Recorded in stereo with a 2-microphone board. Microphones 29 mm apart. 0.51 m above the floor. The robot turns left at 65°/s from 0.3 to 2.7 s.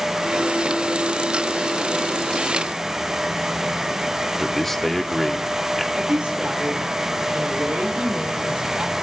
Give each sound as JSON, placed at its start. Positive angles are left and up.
{"t": 4.4, "sound": "a man speaking", "side_deg": 10, "distance_m": 0.6}
{"t": 5.9, "sound": "a woman speaking", "side_deg": -50, "distance_m": 2.0}